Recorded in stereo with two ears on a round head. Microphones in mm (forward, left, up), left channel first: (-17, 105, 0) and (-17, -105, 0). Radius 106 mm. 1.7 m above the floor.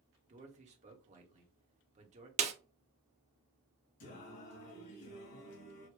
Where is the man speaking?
30° right (ahead or behind), 1.3 m.